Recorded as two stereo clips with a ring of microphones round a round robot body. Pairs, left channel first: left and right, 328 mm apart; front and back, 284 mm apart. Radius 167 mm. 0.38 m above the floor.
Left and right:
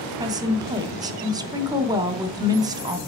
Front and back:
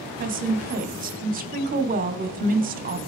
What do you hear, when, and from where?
0.2 s a woman speaking: 160° right, 0.9 m